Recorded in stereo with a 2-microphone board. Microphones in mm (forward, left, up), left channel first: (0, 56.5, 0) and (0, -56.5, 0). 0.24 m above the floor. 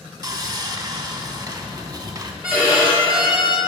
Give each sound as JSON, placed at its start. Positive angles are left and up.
{"t": 0.2, "sound": "sawing", "side_deg": -40, "distance_m": 0.7}
{"t": 2.4, "sound": "a violin", "side_deg": -15, "distance_m": 2.5}